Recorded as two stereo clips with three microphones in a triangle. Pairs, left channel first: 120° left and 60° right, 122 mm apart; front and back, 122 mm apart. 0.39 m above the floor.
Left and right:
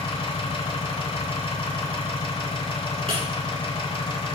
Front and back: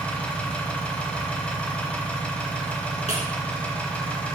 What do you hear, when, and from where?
0.0 s an engine running: 80° left, 1.1 m
3.1 s breaking glass: 25° right, 2.5 m